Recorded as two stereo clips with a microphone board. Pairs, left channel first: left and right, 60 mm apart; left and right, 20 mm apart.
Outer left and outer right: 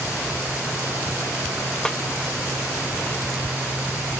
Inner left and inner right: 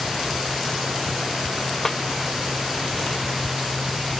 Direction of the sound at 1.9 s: 10° left (ahead or behind).